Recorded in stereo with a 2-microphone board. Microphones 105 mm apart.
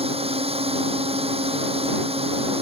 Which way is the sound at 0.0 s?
60° right (ahead or behind).